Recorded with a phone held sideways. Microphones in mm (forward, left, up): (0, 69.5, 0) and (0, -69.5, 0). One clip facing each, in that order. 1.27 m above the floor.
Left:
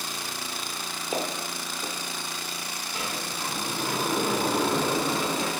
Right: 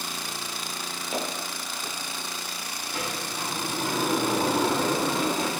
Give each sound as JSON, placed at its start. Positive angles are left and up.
{"t": 1.1, "sound": "footsteps", "side_deg": 30, "distance_m": 1.6}
{"t": 2.9, "sound": "a sliding door", "side_deg": -75, "distance_m": 3.0}